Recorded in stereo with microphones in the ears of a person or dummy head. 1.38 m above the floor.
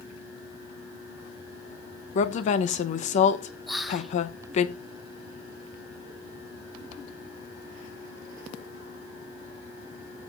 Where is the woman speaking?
40° left (ahead or behind), 0.8 m.